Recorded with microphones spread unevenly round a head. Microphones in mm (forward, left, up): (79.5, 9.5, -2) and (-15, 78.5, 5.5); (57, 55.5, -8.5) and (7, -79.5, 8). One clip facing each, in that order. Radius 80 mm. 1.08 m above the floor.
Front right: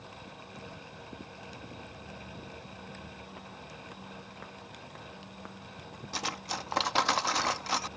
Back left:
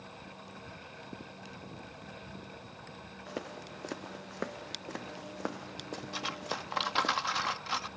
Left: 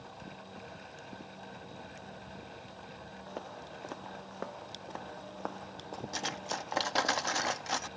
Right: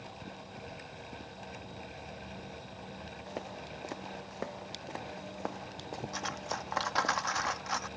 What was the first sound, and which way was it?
Footsteps, 170° left.